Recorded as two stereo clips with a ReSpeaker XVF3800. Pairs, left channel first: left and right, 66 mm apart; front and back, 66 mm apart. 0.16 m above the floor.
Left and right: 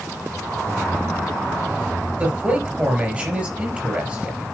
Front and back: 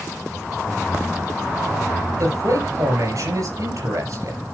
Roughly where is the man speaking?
Behind right.